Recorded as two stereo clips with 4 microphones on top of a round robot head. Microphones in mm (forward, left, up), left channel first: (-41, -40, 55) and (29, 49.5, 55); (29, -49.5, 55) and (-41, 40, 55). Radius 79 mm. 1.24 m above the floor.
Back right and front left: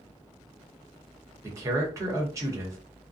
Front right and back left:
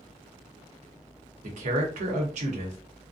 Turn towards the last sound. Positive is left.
turn(degrees=115)